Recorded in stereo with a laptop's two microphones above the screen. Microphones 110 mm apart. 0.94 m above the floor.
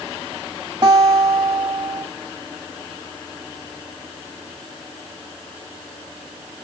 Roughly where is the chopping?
I don't hear chopping.